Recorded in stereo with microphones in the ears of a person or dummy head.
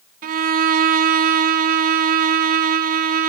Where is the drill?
No drill in this recording.